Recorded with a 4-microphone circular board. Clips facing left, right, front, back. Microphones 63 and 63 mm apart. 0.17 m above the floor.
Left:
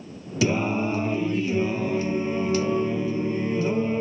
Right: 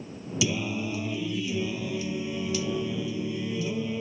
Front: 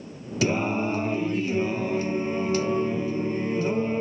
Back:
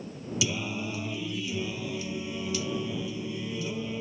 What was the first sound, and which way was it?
Singing, 45° left.